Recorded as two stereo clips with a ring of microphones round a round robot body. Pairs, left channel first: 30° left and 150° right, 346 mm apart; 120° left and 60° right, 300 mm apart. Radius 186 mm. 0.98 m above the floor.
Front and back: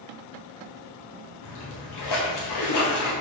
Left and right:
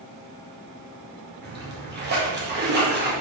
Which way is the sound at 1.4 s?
5° right.